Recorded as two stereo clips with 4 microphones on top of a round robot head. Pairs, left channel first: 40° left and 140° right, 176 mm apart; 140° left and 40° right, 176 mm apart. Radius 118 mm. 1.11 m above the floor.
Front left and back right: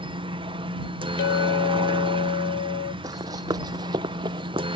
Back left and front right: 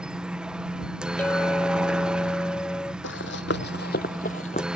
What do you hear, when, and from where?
0.0 s a helicopter: 120° right
1.2 s a clink: 60° left
3.0 s running footsteps: 150° left; by 4.7 s 170° left